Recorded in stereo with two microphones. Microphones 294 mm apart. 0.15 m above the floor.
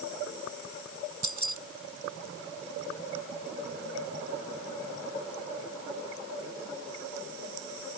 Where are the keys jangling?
75° right (ahead or behind).